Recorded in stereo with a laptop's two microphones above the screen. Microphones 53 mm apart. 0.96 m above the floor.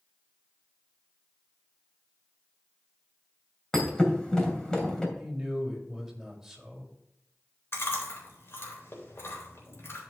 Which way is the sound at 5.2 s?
5° right (ahead or behind).